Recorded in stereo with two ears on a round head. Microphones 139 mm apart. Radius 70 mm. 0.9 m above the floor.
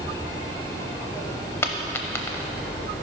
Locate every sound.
1.6 s a dropped coin: 15° left (ahead or behind), 0.7 m